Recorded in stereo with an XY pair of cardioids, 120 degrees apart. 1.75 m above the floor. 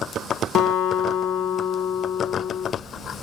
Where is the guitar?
60° left, 0.8 m.